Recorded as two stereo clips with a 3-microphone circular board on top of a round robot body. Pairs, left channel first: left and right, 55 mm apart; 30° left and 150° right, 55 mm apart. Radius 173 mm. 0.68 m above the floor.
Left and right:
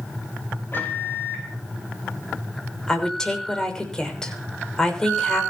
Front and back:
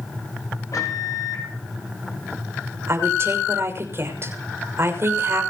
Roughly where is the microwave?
Ahead left.